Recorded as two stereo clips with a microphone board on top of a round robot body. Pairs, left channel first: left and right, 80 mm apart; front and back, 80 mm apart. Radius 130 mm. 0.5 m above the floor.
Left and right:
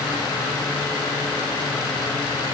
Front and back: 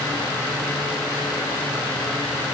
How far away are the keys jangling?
No keys jangling in this recording.